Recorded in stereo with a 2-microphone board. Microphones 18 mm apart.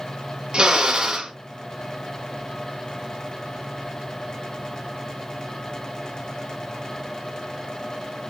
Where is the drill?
60° right (ahead or behind), 1.0 m.